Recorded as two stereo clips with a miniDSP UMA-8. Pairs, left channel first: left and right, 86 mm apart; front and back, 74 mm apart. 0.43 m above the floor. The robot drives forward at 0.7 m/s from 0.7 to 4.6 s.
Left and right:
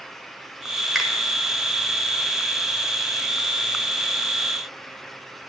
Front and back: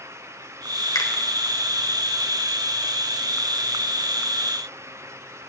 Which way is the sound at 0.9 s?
5° right.